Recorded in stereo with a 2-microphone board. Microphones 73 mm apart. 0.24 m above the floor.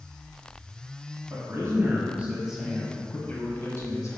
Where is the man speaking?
45° right (ahead or behind), 1.5 m; by 4.2 s 50° left (ahead or behind), 1.5 m.